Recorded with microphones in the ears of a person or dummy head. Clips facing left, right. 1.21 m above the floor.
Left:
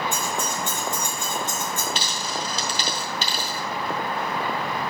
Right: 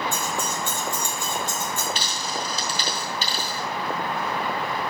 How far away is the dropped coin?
About 2.5 m.